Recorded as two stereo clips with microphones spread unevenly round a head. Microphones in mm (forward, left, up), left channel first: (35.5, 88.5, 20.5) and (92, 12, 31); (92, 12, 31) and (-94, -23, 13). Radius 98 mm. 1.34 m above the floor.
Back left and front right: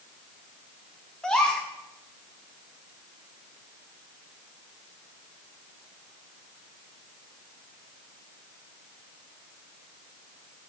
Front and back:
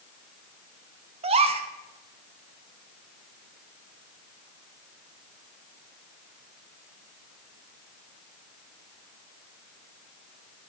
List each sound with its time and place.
1.2 s a gasp: 145° right, 0.7 m